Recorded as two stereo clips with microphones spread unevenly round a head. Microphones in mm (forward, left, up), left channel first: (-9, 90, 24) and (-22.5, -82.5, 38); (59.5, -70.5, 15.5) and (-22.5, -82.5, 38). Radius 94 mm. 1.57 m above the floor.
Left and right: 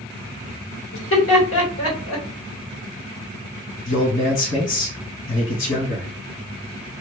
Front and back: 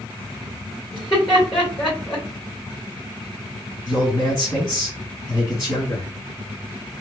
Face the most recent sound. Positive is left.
turn(degrees=80)